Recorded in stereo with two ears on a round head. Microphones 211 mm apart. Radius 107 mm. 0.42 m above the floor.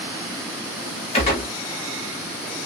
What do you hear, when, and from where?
1.1 s a gunshot: 25° left (ahead or behind), 1.6 m